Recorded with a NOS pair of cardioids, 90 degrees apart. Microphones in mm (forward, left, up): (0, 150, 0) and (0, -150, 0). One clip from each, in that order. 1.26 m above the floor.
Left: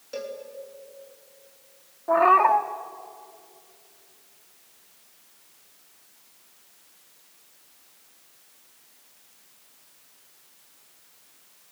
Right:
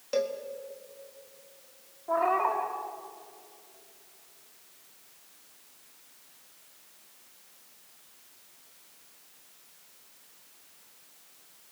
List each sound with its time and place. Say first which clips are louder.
0.1 s a cowbell: right 5 dB; 50° right, 3 m
2.1 s a cat meowing: left 9 dB; 60° left, 1.5 m